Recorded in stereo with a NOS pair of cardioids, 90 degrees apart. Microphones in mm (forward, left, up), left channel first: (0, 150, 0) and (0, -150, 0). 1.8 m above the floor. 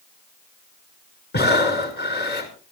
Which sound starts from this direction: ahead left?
Breathing, at 1.3 s.